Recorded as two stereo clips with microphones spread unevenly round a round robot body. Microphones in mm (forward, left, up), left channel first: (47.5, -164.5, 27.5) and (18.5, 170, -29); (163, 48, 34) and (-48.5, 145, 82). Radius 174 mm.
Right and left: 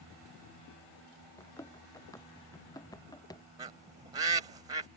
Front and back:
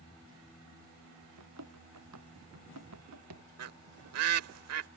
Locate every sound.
1.4 s running footsteps: 165° right
3.6 s a bird: 170° left